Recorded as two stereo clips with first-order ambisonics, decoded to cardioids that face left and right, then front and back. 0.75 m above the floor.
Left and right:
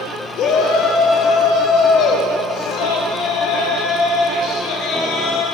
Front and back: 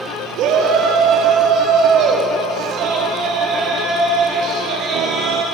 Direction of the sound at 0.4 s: 140° left.